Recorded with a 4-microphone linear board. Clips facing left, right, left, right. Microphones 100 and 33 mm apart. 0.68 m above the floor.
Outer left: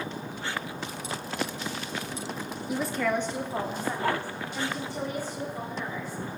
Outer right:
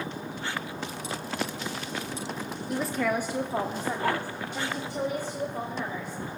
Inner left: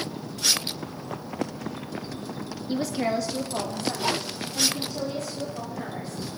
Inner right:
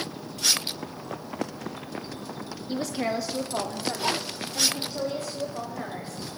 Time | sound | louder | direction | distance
2.7 | a woman speaking | even, inner left 2 dB | 5° left (ahead or behind) | 0.6 m